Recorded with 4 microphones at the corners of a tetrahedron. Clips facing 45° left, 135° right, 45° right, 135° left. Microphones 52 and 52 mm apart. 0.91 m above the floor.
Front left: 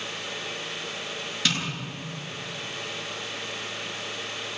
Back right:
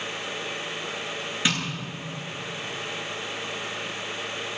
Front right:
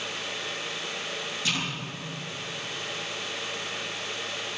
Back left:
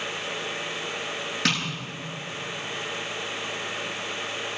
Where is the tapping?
155° left, 9.5 m.